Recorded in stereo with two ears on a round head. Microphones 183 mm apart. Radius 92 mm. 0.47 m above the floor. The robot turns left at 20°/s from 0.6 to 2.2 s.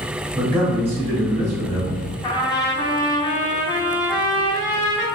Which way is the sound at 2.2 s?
20° left (ahead or behind).